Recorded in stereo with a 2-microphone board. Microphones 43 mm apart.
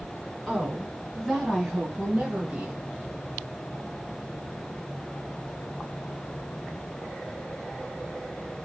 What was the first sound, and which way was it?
A woman speaking, 15° left (ahead or behind).